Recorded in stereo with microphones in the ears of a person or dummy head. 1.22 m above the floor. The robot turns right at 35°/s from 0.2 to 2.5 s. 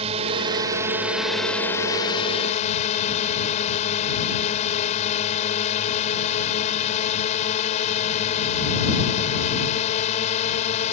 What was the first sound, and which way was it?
A drone, 40° right.